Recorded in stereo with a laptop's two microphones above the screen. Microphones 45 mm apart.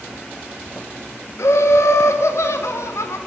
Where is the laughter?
80° left, 1.0 m.